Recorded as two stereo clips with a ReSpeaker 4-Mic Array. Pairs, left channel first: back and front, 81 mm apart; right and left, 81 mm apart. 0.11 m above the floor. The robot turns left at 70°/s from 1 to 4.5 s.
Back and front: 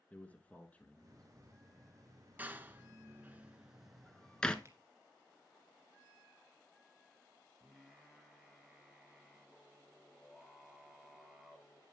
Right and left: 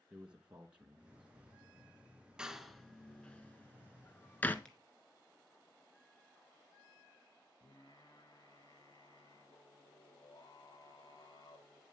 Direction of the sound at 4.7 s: 15° right.